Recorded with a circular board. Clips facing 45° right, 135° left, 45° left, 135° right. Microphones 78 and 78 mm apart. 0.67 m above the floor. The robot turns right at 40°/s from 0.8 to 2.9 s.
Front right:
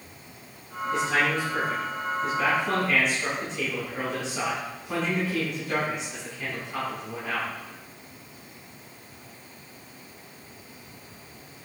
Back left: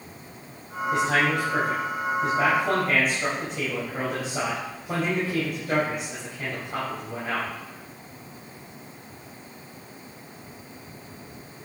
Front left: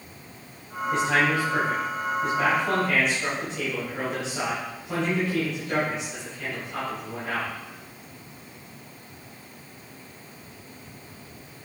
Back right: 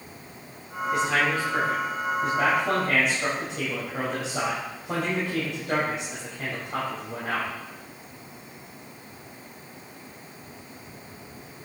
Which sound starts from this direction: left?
A man speaking, at 0.9 s.